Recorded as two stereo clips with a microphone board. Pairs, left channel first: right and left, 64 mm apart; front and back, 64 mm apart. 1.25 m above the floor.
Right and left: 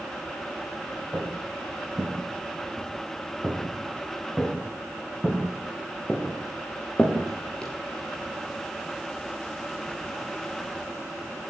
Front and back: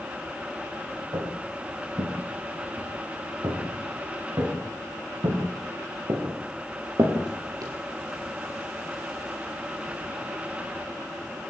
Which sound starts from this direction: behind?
Footsteps, at 1.1 s.